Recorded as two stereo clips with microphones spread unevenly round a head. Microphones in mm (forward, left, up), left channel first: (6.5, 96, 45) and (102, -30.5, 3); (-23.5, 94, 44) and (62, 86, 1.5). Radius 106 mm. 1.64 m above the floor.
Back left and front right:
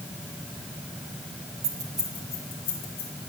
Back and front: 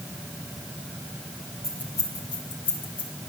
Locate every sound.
1.6 s keys jangling: 115° right, 0.7 m; by 3.1 s 175° right, 2.5 m